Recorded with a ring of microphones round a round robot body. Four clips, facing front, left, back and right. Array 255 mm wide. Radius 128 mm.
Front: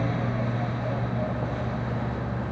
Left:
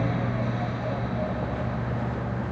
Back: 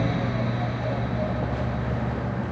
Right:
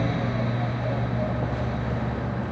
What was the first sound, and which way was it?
Only background noise.